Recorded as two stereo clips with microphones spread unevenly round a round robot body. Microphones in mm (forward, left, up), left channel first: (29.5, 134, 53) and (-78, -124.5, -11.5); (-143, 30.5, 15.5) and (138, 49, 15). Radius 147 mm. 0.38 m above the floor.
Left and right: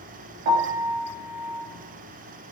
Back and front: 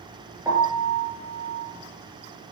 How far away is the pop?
No pop in this recording.